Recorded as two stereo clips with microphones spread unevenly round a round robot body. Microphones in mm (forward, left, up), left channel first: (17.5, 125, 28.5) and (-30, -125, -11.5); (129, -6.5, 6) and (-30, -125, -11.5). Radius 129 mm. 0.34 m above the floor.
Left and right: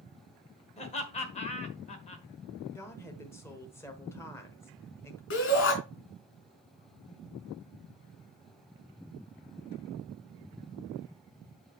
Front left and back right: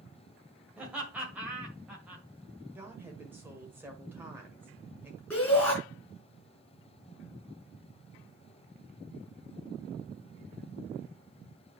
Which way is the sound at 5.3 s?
125° left.